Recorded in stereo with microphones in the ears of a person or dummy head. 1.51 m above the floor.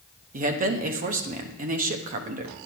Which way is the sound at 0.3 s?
40° right (ahead or behind).